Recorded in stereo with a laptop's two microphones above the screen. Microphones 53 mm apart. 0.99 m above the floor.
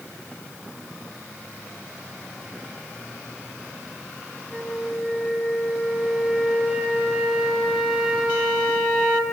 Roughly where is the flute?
Centre.